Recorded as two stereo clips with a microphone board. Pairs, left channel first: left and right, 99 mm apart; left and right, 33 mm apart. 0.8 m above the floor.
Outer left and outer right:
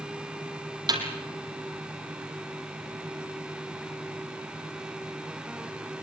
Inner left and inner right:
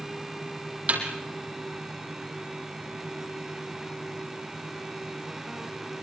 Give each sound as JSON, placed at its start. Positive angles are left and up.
{"t": 0.9, "sound": "a snare drum", "side_deg": -45, "distance_m": 4.0}